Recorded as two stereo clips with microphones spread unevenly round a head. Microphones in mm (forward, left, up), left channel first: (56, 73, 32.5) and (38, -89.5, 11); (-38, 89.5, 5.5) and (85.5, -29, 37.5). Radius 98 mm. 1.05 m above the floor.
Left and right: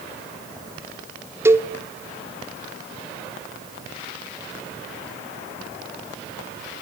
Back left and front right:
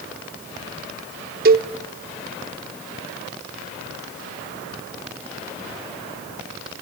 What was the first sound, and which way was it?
A cowbell, 20° right.